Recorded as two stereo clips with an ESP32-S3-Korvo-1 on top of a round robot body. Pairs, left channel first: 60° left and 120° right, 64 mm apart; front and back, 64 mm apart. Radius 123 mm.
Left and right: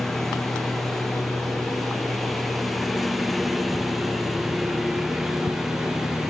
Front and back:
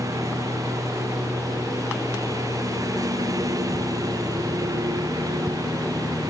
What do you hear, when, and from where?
0.0 s a lawn mower: 145° left; by 6.3 s 155° left